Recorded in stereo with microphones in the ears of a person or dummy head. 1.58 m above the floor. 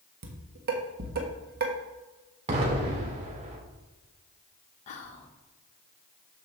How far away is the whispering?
About 1.5 m.